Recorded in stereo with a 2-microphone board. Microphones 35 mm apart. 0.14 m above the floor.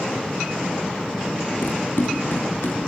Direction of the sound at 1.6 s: 80° left.